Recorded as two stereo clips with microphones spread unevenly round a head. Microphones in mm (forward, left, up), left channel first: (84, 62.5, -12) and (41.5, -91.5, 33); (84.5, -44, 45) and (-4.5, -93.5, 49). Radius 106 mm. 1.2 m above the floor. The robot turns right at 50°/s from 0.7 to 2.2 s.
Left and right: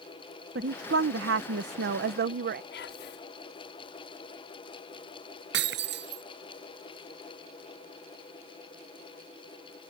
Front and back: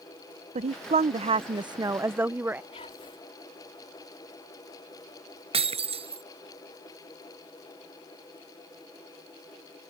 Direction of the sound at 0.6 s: 155° right.